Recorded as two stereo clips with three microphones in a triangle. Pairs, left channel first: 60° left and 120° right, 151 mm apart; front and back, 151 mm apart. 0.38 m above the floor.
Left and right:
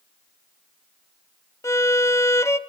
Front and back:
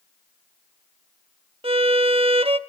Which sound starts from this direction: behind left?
A violin, at 1.6 s.